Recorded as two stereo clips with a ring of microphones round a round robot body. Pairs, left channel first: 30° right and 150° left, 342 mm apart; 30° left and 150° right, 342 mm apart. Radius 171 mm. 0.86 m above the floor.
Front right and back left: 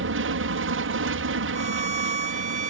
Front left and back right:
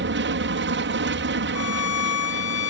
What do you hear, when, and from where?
0.0 s an aircraft: 175° left
1.6 s a violin: 80° left